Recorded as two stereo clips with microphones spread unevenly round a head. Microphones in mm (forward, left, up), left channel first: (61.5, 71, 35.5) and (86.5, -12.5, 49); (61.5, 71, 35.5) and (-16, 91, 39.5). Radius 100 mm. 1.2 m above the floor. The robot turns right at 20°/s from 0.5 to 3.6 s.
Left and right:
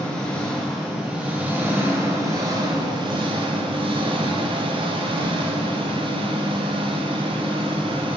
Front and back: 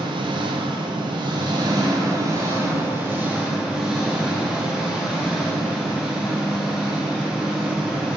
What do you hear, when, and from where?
0.0 s an engine running: 170° right, 0.8 m; by 8.2 s 110° right, 0.8 m